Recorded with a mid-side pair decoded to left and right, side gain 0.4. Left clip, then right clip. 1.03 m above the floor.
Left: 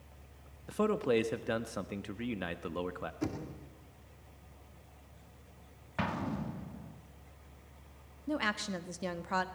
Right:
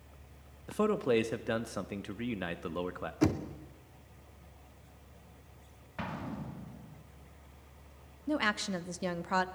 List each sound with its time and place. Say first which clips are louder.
0.7 s a man speaking: right 1 dB; 5° right, 1.4 m
3.2 s knocking: right 11 dB; 60° right, 2 m
6.0 s an explosion: left 4 dB; 45° left, 2.5 m
8.3 s a woman speaking: right 2 dB; 15° right, 1.4 m